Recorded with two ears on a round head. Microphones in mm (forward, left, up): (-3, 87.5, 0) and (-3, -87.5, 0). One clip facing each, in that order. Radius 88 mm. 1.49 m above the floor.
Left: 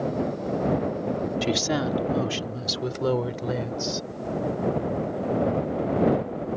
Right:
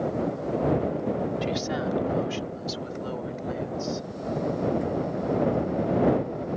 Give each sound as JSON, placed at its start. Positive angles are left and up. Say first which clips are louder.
{"t": 1.4, "sound": "a woman speaking", "louder": "left 3 dB", "side_deg": 60}